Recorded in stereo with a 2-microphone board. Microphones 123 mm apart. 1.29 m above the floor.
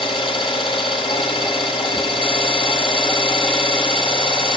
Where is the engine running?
45° left (ahead or behind), 1.8 m.